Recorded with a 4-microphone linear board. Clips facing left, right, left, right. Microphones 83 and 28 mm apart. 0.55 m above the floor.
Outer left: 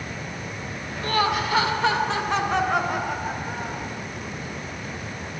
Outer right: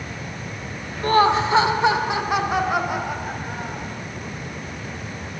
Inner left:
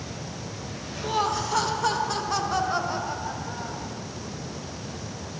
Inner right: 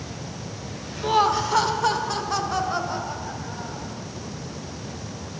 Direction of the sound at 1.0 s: 35° right (ahead or behind).